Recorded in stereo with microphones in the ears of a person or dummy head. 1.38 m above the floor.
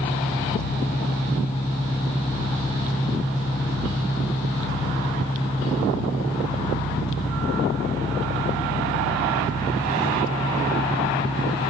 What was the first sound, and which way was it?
An engine running, 15° left (ahead or behind).